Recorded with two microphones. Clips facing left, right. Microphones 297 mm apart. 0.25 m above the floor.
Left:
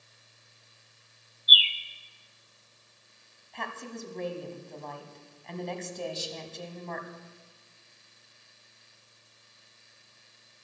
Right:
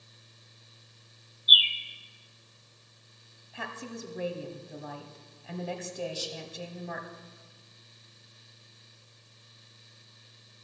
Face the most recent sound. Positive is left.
turn(degrees=30)  # may be behind; listen again after turning